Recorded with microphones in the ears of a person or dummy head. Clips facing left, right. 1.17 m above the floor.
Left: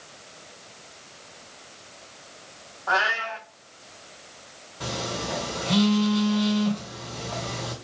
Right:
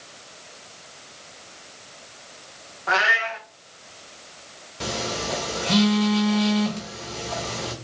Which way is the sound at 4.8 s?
30° right (ahead or behind).